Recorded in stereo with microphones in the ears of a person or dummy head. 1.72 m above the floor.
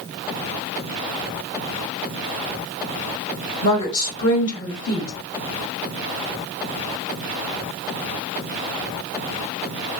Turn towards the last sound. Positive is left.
turn(degrees=65)  # may be behind; listen again after turning